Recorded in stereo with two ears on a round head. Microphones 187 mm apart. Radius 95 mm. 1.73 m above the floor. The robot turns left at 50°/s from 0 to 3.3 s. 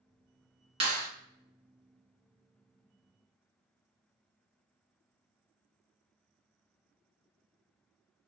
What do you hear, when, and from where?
0.8 s a clap: 25° right (ahead or behind), 1.4 m; by 1.1 s 40° right (ahead or behind), 1.4 m